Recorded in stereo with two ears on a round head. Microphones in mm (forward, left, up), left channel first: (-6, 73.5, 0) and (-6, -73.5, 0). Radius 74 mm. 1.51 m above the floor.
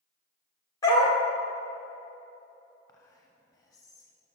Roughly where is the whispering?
Centre.